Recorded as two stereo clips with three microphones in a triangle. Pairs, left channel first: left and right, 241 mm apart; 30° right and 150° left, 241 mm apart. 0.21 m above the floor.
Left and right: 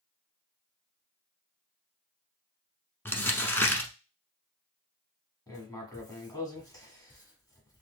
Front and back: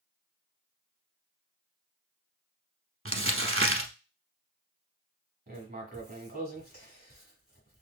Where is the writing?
155° left, 1.2 m.